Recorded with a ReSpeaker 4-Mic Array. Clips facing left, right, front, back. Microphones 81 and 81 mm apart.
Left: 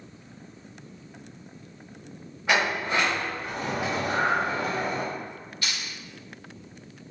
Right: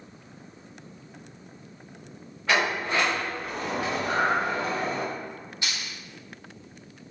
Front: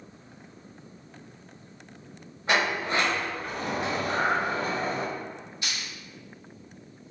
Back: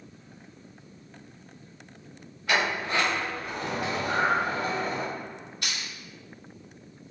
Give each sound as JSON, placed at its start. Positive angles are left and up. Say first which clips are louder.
{"t": 2.5, "sound": "a sliding door", "louder": "even, front 1 dB", "azimuth_deg": 25, "distance_m": 1.2}
{"t": 4.0, "sound": "breathing", "louder": "even, back 2 dB", "azimuth_deg": -160, "distance_m": 1.5}
{"t": 5.6, "sound": "crushing", "louder": "even, back 1 dB", "azimuth_deg": -160, "distance_m": 1.8}